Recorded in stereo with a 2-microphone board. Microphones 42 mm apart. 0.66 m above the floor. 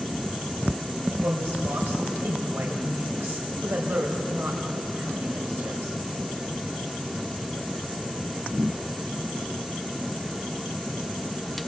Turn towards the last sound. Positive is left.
turn(degrees=-70)  # may be behind; listen again after turning